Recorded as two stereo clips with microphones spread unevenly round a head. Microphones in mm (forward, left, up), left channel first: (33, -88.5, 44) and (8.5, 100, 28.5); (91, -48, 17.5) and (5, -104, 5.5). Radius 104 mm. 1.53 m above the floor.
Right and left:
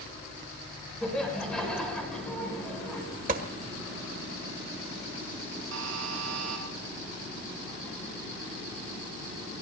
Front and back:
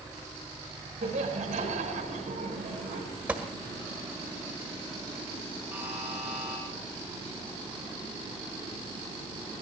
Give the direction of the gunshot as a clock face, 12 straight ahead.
8 o'clock.